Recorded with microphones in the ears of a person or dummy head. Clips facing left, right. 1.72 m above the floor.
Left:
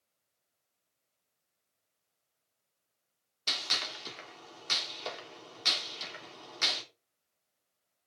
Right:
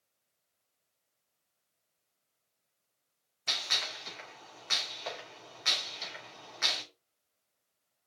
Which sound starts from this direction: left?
A gunshot, at 3.5 s.